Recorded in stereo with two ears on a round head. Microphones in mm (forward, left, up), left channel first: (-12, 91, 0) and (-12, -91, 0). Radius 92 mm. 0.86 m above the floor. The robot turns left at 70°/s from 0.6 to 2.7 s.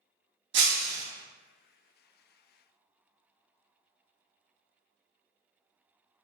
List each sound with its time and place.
0.5 s breaking glass: 115° right, 0.7 m; by 1.0 s 145° right, 0.7 m